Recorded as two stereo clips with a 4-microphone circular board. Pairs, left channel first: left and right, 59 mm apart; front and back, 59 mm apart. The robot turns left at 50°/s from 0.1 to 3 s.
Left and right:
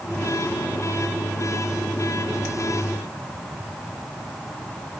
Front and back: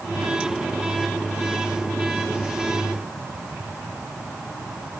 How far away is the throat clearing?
No throat clearing in this recording.